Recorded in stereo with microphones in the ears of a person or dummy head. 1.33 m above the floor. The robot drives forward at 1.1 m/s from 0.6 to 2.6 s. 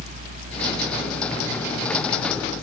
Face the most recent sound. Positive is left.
No sound to turn to.